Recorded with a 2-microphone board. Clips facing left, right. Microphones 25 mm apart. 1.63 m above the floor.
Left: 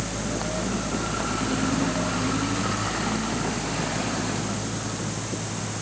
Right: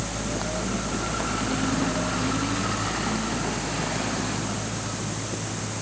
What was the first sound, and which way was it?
Only background noise.